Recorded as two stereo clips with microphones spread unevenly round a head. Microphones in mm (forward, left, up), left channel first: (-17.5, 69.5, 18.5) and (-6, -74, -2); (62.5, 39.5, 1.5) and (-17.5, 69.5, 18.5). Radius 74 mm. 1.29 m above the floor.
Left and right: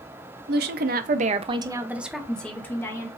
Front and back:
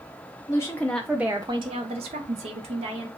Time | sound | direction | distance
0.5 | a woman speaking | 85° right | 0.7 m